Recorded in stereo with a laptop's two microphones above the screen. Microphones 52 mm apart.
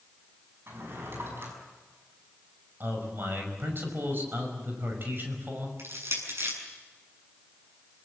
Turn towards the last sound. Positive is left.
turn(degrees=-60)  # may be behind; listen again after turning